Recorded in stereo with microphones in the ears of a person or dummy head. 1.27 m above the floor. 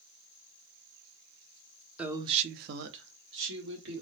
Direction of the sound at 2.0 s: 10° right (ahead or behind).